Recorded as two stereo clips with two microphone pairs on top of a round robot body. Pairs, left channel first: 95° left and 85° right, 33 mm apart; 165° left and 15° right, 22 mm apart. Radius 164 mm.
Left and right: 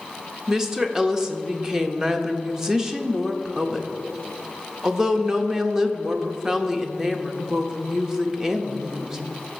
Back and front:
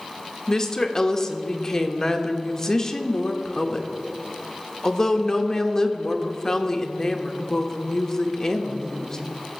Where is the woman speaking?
155° right, 1.1 m.